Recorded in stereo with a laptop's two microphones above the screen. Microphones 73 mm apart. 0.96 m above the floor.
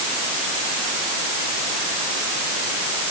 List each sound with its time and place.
Only background noise.